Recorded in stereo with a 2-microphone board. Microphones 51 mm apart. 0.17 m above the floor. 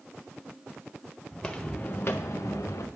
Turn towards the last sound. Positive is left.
turn(degrees=80)